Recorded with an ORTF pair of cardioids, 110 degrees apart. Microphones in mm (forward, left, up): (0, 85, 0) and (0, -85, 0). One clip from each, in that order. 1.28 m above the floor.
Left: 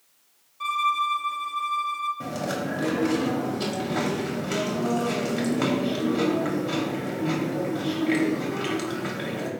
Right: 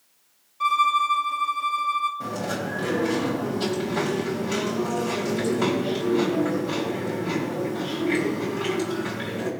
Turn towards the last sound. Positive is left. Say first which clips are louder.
# right 1 dB
turn(degrees=20)